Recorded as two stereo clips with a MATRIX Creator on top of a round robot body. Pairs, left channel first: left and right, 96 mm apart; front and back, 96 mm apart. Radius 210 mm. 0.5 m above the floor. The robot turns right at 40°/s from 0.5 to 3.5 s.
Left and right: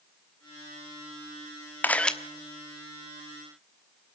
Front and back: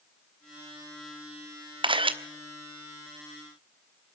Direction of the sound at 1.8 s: 160° left.